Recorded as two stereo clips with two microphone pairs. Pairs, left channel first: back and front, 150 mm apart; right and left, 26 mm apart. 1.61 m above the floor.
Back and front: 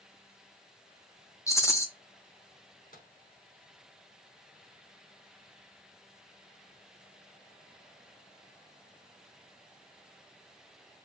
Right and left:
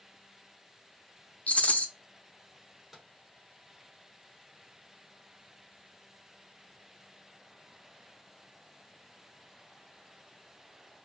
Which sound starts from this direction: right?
A rattle, at 1.5 s.